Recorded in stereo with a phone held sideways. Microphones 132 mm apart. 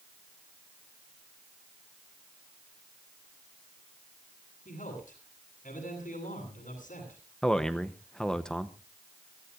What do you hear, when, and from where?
4.7 s a man speaking: 85° left, 9 m
7.4 s a man speaking: 5° left (ahead or behind), 0.8 m